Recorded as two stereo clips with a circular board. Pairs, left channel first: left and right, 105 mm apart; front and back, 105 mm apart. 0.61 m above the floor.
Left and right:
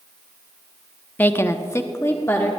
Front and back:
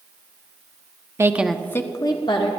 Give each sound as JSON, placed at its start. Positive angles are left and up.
{"t": 1.2, "sound": "a woman speaking", "azimuth_deg": 145, "distance_m": 0.6}